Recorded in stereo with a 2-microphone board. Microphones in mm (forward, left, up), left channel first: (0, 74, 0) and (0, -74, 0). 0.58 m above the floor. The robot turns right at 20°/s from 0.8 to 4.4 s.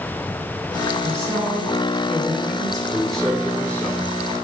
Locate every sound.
1.0 s a woman speaking: 165° left, 3.5 m; by 2.8 s 160° right, 3.5 m
2.9 s a man speaking: centre (ahead or behind), 1.8 m; by 4.1 s 20° left (ahead or behind), 1.8 m